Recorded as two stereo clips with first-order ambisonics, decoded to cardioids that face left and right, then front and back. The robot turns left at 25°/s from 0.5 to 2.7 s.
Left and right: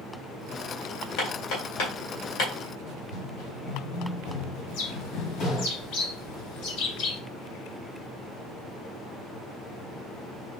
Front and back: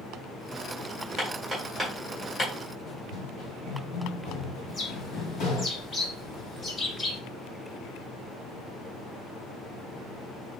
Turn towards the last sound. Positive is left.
turn(degrees=70)